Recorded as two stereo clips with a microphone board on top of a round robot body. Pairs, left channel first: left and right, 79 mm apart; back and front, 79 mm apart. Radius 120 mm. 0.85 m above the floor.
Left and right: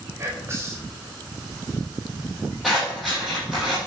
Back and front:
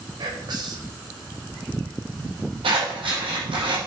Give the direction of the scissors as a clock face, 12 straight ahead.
12 o'clock.